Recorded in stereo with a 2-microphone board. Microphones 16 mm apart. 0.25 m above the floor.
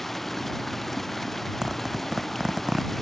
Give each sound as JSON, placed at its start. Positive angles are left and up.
{"t": 0.0, "sound": "running water", "side_deg": 15}
{"t": 1.6, "sound": "a zipper", "side_deg": -40}